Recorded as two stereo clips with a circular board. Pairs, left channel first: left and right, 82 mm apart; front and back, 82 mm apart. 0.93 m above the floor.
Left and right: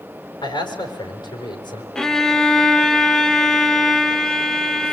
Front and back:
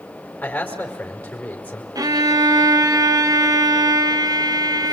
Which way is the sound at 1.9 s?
170° left.